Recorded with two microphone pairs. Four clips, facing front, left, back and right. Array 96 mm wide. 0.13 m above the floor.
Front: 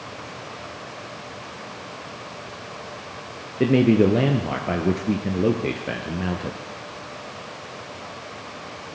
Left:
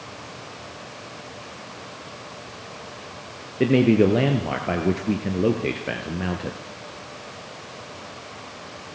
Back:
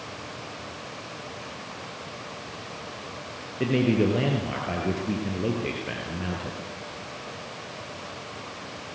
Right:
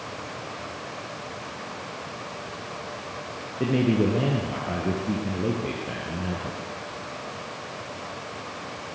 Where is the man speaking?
70° left, 2 m.